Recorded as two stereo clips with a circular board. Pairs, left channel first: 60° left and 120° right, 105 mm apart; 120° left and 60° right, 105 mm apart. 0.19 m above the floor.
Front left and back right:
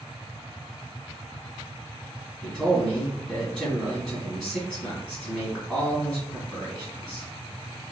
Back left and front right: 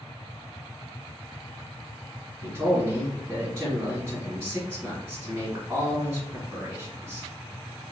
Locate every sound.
2.4 s a man speaking: 20° right, 1.8 m